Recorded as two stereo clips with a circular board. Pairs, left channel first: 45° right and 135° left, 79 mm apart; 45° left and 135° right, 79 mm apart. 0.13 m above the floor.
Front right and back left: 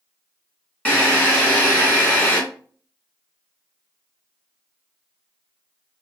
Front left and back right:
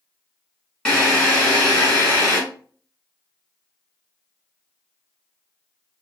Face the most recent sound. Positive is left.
turn(degrees=-15)